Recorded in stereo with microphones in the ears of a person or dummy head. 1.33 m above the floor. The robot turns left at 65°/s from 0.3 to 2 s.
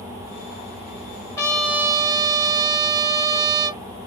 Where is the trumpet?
20° left, 1.1 m; by 3.8 s 20° right, 1.1 m.